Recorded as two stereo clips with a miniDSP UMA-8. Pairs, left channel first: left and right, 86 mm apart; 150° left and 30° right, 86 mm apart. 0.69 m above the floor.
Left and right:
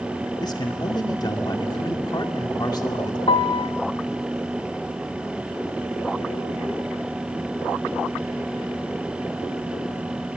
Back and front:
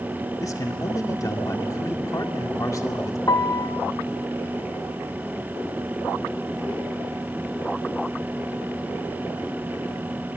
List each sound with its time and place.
0.4 s a man speaking: 110° left, 2 m
3.3 s a piano: 100° left, 0.6 m